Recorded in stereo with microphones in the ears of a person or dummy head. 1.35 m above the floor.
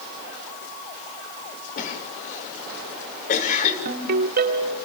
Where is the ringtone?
60° right (ahead or behind), 2 m.